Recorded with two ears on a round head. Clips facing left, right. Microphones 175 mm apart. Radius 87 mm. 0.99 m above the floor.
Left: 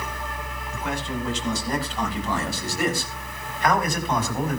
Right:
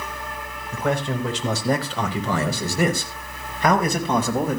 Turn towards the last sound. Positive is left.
turn(degrees=-75)  # may be behind; listen again after turning